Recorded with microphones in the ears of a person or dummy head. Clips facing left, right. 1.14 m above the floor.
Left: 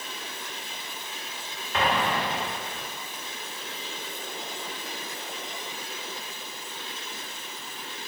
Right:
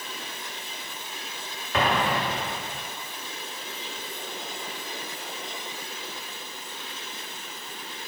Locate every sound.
1.7 s an explosion: 55° right (ahead or behind), 1.1 m